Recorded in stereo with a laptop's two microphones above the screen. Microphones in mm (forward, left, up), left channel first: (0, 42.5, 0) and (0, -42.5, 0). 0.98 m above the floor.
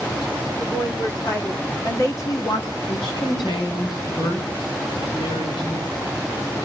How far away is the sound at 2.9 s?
About 5.5 m.